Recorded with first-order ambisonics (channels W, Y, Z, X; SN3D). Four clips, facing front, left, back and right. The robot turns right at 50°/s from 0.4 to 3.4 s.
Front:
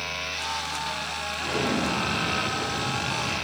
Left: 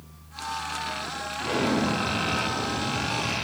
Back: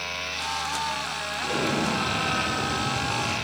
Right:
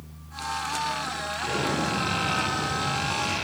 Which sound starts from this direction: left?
An explosion, at 1.4 s.